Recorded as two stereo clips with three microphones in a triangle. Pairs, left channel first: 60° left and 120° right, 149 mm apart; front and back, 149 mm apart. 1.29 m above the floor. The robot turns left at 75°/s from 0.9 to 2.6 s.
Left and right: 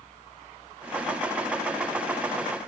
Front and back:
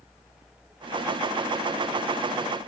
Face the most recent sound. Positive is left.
No sound to turn to.